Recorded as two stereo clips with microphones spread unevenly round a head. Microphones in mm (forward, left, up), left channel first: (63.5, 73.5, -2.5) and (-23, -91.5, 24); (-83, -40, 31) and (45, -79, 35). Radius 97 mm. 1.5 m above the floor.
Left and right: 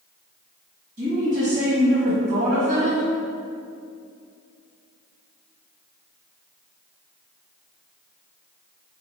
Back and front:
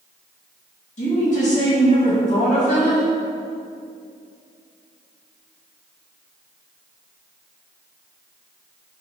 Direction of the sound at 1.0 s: 170° right.